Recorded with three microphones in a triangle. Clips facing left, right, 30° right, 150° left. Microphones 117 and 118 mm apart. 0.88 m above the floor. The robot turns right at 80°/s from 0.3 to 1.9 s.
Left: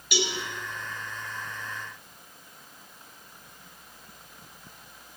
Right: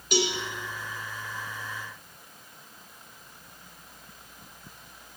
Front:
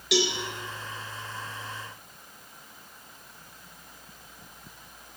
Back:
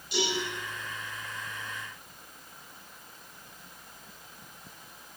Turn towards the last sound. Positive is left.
turn(degrees=85)